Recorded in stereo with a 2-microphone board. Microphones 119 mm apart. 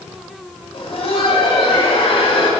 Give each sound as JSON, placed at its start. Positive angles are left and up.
{"t": 0.7, "sound": "laughter", "side_deg": 55, "distance_m": 1.6}